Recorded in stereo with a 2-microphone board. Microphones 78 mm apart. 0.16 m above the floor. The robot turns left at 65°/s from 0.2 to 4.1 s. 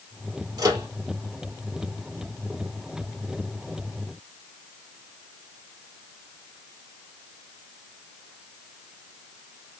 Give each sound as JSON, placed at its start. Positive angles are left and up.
{"t": 0.6, "sound": "a microwave", "side_deg": -50, "distance_m": 2.5}